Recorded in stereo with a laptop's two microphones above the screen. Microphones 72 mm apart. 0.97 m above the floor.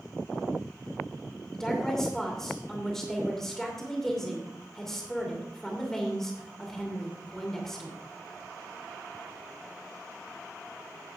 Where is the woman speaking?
5° left (ahead or behind), 2.5 m.